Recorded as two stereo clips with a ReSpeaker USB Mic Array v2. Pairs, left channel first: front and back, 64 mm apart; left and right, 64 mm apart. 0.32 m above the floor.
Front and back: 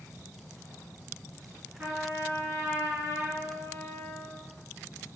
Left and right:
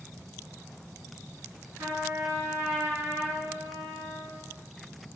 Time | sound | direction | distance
1.8 | a trumpet | 125° right | 1.8 m